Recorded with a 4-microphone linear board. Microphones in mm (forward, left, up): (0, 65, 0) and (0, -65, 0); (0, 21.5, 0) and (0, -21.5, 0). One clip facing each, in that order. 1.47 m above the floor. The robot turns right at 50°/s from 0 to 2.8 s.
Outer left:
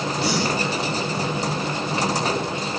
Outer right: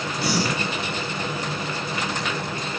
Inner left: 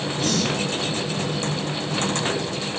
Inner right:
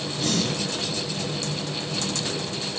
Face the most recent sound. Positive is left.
turn(degrees=-50)